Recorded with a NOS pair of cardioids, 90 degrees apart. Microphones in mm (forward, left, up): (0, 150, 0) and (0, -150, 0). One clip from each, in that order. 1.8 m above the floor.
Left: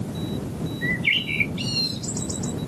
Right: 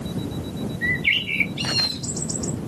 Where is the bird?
25° right.